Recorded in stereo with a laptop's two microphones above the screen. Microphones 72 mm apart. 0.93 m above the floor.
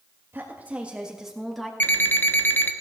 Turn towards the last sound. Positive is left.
turn(degrees=25)  # may be behind; listen again after turning